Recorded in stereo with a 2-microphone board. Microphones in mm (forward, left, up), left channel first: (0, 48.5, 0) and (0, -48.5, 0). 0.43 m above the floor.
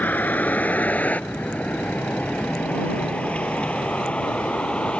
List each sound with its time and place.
0.0 s a vehicle: 20° left (ahead or behind); by 5.0 s 10° left (ahead or behind)